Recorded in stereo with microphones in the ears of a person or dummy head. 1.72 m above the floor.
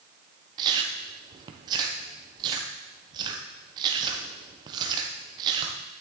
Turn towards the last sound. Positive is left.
turn(degrees=-30)  # may be behind; listen again after turning